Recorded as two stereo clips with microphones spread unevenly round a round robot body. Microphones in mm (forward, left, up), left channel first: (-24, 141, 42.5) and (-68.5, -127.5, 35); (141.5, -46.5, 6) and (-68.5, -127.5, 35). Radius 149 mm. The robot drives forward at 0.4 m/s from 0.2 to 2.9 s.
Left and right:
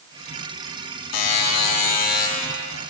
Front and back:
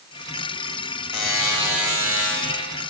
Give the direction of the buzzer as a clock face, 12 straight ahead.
8 o'clock.